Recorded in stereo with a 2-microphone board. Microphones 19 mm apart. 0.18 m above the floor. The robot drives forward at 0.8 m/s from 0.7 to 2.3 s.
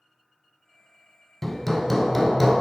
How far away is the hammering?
About 0.5 m.